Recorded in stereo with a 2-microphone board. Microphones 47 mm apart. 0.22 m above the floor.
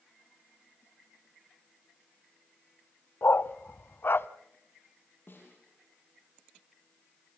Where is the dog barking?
55° left (ahead or behind), 0.5 m.